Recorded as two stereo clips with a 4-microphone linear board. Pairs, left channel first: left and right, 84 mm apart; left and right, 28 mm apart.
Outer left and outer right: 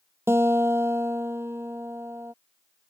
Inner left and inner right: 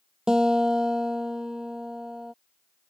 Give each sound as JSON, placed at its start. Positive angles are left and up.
{"t": 0.3, "sound": "a guitar", "side_deg": -30}